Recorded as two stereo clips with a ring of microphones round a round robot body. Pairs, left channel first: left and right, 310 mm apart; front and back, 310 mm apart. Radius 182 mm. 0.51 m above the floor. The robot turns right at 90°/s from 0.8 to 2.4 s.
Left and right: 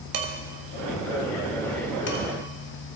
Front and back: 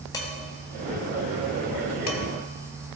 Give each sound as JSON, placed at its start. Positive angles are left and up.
{"t": 0.1, "sound": "dishes clattering", "azimuth_deg": -80, "distance_m": 2.0}